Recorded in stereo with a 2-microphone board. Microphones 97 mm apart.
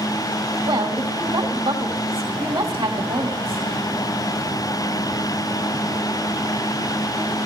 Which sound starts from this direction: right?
A woman speaking, at 0.7 s.